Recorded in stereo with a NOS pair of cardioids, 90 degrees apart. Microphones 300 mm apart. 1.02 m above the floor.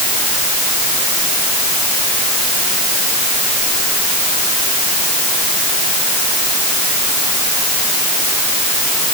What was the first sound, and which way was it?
Only background noise.